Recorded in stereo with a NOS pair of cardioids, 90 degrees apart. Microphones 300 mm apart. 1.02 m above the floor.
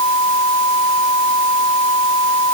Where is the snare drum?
No snare drum in this recording.